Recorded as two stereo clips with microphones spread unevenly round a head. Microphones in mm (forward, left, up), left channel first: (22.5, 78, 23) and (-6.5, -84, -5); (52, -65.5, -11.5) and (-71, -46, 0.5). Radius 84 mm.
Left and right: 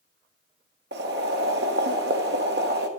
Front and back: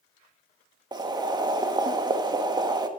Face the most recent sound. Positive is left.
turn(degrees=-135)